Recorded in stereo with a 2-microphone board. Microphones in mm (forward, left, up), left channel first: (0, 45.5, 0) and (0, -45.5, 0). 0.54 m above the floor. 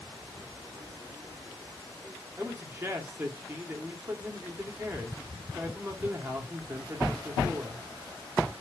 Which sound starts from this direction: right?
A man speaking, at 2.4 s.